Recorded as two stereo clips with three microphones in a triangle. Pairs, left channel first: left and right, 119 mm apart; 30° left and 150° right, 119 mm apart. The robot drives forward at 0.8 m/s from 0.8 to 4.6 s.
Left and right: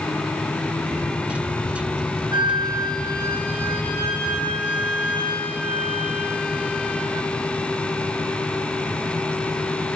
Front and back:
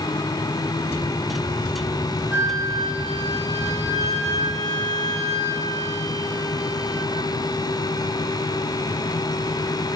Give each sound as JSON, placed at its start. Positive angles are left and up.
{"t": 2.3, "sound": "a flute", "azimuth_deg": -85, "distance_m": 0.7}